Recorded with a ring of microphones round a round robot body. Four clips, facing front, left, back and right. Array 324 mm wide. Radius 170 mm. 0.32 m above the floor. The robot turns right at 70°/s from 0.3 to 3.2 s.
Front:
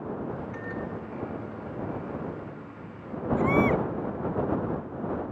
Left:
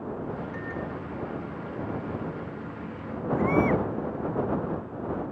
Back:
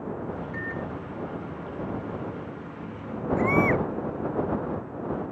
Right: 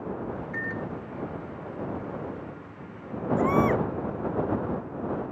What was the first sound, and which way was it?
A microwave, 45° right.